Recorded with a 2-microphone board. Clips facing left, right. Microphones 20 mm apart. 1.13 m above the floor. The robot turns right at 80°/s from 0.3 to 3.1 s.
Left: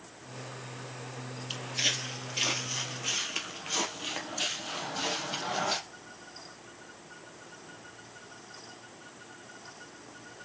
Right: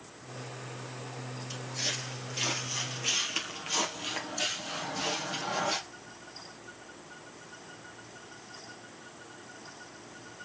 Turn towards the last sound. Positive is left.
turn(degrees=15)  # may be behind; listen again after turning